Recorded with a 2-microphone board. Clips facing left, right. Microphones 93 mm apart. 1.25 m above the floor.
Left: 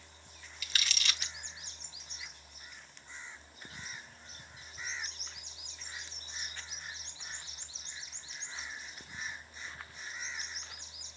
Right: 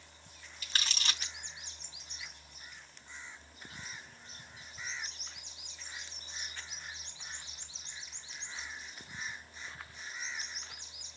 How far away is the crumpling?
About 1.1 m.